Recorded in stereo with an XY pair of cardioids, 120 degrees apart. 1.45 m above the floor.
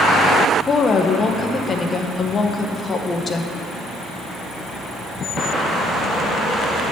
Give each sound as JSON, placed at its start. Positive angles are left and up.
{"t": 0.7, "sound": "a woman speaking", "azimuth_deg": 30, "distance_m": 0.9}